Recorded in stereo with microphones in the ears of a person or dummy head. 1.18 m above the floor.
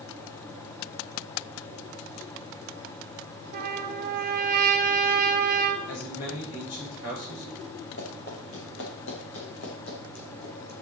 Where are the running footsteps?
70° left (ahead or behind), 4.5 m.